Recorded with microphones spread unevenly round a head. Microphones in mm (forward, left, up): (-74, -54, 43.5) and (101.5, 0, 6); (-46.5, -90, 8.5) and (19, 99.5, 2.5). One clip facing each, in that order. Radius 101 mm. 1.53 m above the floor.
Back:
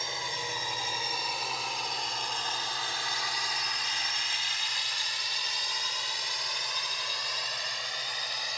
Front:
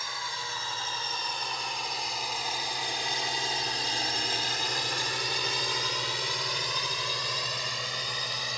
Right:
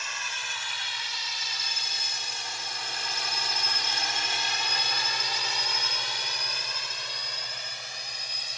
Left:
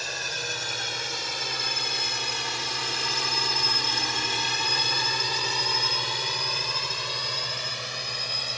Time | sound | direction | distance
0.0 | a drone | 125° left | ?